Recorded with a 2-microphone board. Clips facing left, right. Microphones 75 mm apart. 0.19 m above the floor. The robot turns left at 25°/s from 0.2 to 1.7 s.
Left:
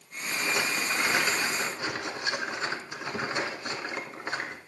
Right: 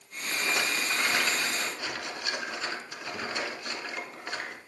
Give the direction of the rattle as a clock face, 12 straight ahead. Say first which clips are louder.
Left 1 dB; 6 o'clock.